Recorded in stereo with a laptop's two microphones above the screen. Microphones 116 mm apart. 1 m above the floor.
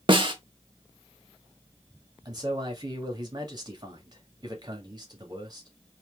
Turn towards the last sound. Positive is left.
turn(degrees=-35)  # may be behind; listen again after turning